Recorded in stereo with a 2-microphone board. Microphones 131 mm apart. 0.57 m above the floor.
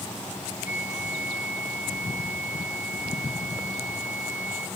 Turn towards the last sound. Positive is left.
turn(degrees=60)  # may be behind; listen again after turning